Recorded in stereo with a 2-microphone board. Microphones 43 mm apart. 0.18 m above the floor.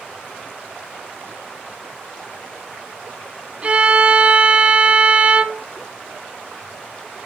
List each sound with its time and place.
3.6 s a violin: 30° right (ahead or behind), 0.6 m